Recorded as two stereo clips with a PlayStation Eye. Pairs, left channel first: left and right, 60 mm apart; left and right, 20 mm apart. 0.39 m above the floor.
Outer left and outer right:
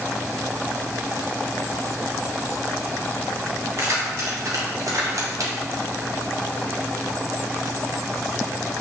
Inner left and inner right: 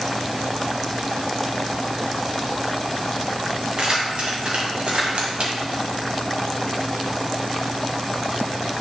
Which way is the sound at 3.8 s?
45° right (ahead or behind).